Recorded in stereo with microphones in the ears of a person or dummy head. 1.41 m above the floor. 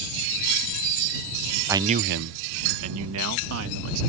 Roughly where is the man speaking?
Centre.